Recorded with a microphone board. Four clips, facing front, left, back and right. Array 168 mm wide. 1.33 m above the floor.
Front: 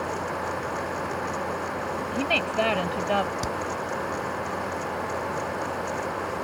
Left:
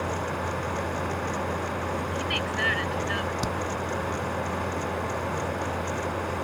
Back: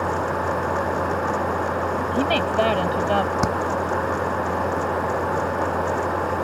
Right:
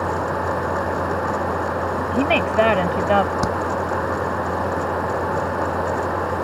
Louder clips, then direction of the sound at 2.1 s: Right 12 dB, back 5 dB; 105° right.